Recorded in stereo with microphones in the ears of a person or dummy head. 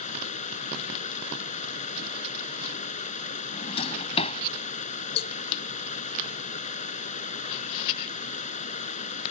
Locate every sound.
0.0 s running water: 40° left (ahead or behind)
3.5 s a drawer: 35° left (ahead or behind)
5.2 s a cowbell: 65° left (ahead or behind)